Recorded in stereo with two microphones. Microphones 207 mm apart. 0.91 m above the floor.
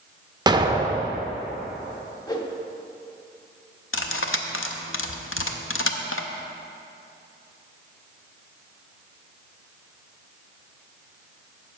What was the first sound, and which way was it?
An explosion, 20° right (ahead or behind).